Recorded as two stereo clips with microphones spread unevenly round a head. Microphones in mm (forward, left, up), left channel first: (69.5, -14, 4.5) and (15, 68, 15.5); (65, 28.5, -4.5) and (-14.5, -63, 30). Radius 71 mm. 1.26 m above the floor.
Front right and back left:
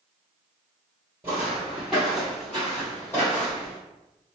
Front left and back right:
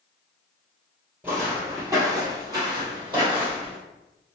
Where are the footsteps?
Straight behind, 1.6 m; by 3.8 s 125° right, 1.9 m.